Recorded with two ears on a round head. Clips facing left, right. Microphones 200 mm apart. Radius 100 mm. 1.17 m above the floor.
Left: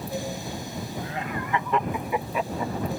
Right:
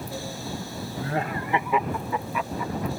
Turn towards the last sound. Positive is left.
turn(degrees=40)  # may be behind; listen again after turning